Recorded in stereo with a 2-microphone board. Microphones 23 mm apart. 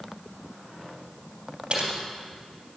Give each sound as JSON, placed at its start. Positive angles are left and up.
{"t": 1.7, "sound": "typing on a keyboard", "side_deg": -50, "distance_m": 3.0}